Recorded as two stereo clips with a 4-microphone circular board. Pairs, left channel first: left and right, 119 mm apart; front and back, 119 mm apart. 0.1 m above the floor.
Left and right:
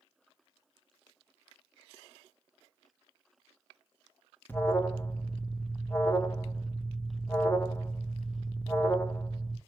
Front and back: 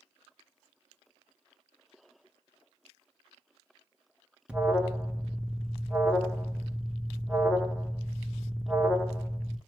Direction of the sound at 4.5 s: 120° left.